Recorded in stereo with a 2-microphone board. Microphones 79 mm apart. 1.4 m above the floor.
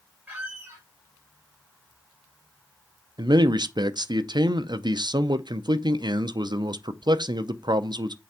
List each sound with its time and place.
0.3 s a squeak: 25° right (ahead or behind), 3.5 m
3.2 s a man speaking: 70° right (ahead or behind), 0.6 m